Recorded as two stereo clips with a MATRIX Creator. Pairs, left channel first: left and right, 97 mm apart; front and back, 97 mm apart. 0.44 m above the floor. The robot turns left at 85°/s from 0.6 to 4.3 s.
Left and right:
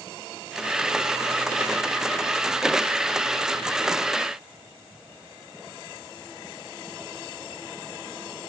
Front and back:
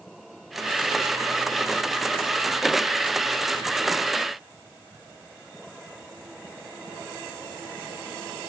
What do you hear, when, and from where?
Only background noise.